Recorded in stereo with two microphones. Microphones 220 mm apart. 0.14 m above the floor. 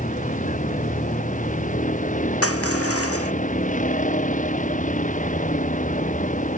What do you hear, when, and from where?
0.0 s a vehicle: 35° left (ahead or behind)
2.4 s crushing: 80° left